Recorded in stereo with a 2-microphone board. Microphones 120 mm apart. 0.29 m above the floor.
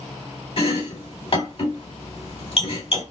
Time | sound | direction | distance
0.6 | chopping | 50° left (ahead or behind) | 2.5 m